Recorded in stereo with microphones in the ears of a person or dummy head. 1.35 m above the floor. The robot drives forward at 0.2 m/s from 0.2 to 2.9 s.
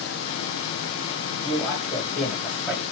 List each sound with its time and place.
1.4 s a man speaking: 5° right (ahead or behind), 1.9 m; by 2.8 s centre (ahead or behind), 2 m